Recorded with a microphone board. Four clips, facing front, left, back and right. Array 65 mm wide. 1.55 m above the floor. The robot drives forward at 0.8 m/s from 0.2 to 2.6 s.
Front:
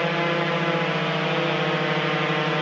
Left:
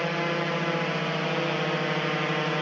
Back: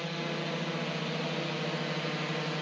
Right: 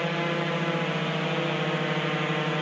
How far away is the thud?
I don't hear a thud.